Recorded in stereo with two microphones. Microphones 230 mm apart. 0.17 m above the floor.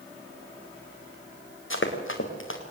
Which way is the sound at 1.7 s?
60° left (ahead or behind).